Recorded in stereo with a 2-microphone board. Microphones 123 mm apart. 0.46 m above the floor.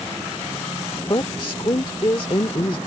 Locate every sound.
1.1 s a woman speaking: 40° left (ahead or behind)